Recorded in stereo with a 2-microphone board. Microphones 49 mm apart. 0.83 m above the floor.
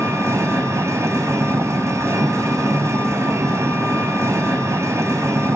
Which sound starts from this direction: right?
An engine running, at 0.0 s.